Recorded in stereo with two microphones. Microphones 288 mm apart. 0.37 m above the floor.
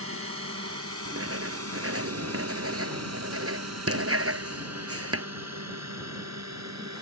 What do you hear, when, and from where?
0.0 s a drone: 50° right (ahead or behind); by 7.0 s 65° right (ahead or behind)
1.1 s writing: 50° right (ahead or behind)